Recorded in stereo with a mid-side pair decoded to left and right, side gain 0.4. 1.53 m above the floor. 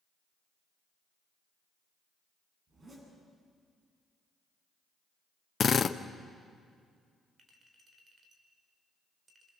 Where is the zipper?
40° right, 10 m.